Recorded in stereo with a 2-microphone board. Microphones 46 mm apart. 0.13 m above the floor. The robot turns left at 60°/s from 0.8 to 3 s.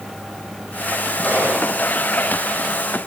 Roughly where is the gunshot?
Behind left.